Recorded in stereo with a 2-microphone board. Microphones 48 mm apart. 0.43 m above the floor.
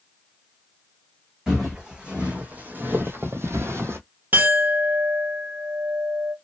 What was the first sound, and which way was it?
Footsteps, 15° right (ahead or behind).